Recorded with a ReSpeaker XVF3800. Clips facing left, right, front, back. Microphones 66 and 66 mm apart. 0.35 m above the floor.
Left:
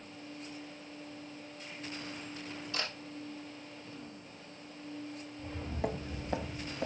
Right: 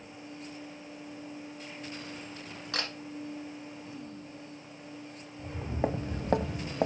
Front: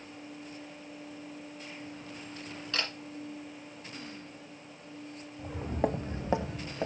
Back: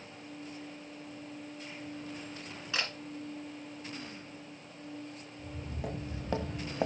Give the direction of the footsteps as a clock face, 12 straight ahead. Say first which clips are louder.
Right 5 dB, front 11 dB; 12 o'clock.